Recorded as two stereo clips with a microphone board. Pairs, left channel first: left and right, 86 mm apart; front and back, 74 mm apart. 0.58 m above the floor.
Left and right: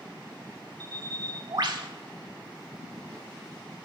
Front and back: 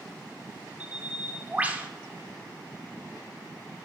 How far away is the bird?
About 1.0 m.